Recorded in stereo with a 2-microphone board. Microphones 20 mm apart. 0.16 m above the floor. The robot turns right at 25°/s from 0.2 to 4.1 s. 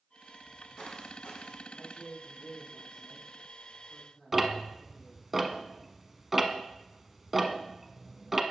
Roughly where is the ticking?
Centre.